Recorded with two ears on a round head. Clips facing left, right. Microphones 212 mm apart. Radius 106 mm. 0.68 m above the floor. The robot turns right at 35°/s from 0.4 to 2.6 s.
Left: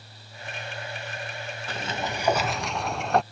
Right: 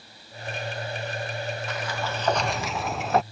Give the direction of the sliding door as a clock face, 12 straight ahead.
7 o'clock.